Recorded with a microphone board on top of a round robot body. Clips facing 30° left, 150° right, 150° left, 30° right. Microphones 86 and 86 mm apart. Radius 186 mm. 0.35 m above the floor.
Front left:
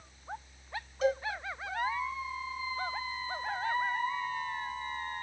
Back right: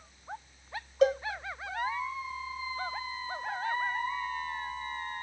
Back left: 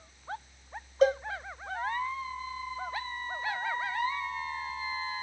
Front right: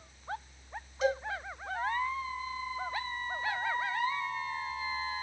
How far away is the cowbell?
About 1.5 m.